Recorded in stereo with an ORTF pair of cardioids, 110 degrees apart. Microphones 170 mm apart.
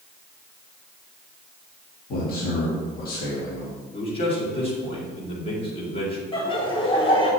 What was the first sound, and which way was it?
A man speaking, 60° left.